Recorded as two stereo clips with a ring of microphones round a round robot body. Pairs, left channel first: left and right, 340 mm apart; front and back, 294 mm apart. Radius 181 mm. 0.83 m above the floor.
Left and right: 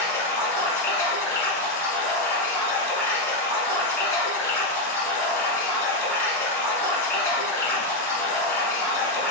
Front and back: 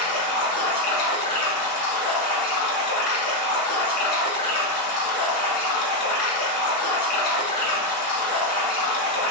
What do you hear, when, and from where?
0.0 s running water: 5° left, 1.3 m